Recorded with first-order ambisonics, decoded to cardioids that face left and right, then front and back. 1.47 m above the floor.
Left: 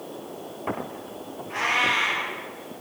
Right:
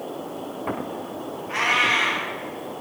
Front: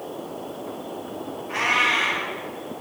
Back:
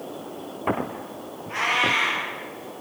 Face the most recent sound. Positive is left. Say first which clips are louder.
# right 3 dB, front 1 dB
turn(degrees=-60)